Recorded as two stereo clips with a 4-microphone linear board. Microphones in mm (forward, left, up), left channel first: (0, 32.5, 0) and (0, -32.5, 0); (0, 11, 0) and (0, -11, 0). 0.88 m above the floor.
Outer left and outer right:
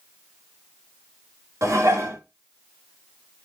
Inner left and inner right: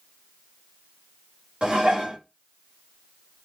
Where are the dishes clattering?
50° right (ahead or behind), 1.2 m.